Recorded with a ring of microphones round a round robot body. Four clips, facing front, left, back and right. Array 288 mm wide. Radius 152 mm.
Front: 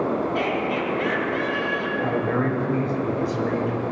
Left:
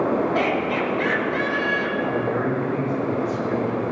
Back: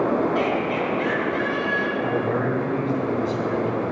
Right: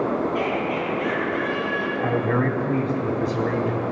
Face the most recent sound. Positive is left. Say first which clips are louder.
# right 1 dB, front 2 dB
turn(degrees=-80)